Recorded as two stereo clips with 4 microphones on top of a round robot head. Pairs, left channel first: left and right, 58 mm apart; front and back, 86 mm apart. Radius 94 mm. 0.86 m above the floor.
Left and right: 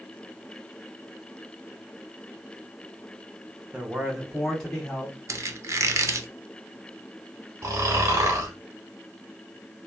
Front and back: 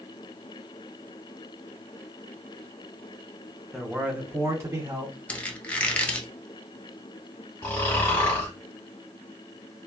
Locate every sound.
3.7 s a man speaking: 85° right, 0.8 m; by 5.2 s 150° left, 1.2 m
5.3 s a squeak: 70° right, 0.6 m
7.6 s snoring: 65° right, 1.0 m